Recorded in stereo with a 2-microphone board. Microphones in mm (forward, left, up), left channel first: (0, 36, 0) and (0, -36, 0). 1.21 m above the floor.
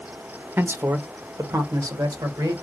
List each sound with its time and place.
0.6 s a man speaking: 30° right (ahead or behind), 0.6 m; by 2.5 s 65° right (ahead or behind), 1.5 m